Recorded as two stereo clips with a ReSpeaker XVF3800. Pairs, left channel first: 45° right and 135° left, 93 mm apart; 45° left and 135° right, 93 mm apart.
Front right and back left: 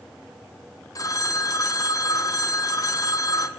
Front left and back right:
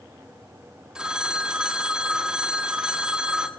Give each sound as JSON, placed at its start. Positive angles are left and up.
{"t": 0.9, "sound": "a phone ringing", "azimuth_deg": -60, "distance_m": 1.3}